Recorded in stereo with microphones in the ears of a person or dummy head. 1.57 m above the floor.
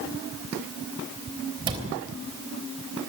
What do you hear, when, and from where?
1.7 s a cupboard door: 25° right (ahead or behind), 3.5 m